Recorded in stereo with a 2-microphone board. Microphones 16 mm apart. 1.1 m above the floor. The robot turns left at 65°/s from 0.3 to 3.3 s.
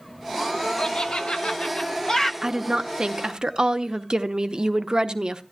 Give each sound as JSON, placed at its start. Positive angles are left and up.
{"t": 0.8, "sound": "laughter", "side_deg": 45, "distance_m": 1.1}
{"t": 2.4, "sound": "a woman speaking", "azimuth_deg": -40, "distance_m": 0.8}